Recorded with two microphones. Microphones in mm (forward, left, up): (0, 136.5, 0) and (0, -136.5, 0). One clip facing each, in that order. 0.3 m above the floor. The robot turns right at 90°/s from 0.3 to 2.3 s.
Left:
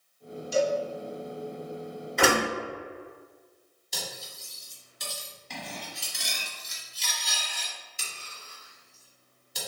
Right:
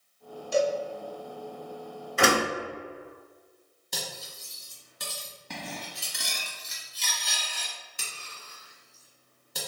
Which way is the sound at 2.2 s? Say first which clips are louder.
Even; 5° right (ahead or behind).